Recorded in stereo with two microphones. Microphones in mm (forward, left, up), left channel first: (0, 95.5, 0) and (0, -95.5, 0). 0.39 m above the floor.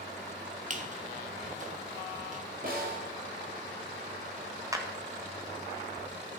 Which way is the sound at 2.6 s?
50° right (ahead or behind).